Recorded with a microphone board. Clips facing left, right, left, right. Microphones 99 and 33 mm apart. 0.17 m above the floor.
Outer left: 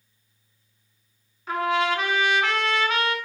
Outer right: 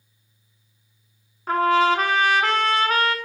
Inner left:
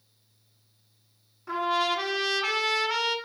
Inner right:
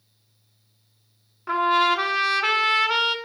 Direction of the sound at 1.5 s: 40° right (ahead or behind).